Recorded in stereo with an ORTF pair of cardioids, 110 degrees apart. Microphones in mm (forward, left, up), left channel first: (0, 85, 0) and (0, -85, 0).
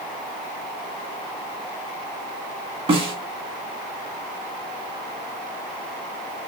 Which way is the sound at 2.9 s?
30° right.